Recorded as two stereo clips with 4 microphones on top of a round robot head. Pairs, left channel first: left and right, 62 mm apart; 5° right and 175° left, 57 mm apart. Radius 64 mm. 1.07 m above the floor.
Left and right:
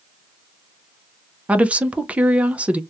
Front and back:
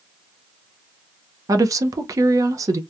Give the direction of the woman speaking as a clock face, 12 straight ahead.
5 o'clock.